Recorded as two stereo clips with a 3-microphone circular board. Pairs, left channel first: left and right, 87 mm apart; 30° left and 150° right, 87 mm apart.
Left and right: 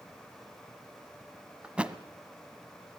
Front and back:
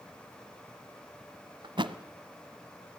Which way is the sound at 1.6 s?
165° right.